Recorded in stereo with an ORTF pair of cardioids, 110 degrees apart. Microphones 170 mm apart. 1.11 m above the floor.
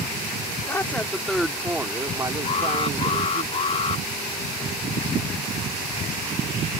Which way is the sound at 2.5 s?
35° left.